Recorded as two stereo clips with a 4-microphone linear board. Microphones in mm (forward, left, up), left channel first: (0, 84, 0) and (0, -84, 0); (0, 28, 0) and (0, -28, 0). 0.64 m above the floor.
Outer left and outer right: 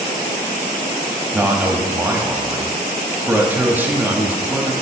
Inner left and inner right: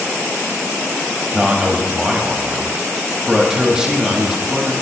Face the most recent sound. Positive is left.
turn(degrees=-10)  # may be behind; listen again after turning